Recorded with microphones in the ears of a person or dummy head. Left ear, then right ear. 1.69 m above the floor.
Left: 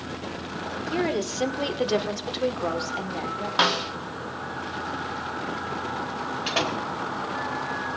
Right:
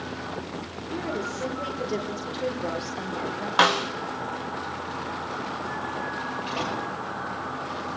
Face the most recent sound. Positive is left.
turn(degrees=65)  # may be behind; listen again after turning